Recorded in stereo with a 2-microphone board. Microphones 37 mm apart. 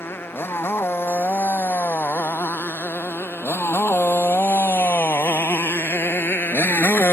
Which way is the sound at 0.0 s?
80° left.